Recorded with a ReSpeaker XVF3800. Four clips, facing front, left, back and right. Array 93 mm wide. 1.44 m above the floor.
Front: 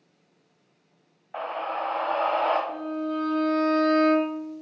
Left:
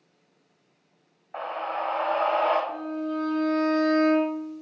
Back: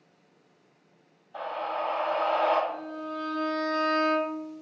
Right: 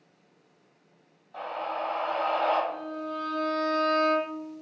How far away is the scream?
About 1.3 m.